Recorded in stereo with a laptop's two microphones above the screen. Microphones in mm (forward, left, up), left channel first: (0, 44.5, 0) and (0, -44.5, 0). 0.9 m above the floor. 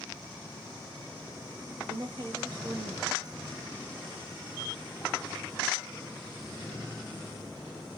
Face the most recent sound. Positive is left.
turn(degrees=-45)  # may be behind; listen again after turning